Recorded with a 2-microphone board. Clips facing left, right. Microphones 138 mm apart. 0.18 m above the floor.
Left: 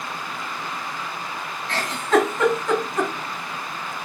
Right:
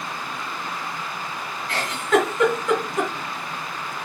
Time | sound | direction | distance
1.7 | a giggle | 35° left (ahead or behind) | 1.7 m